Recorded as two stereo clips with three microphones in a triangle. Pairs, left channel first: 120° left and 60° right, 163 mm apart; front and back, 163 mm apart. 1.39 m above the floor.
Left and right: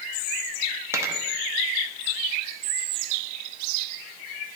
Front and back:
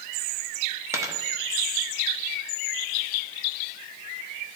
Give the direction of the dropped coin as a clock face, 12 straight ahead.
4 o'clock.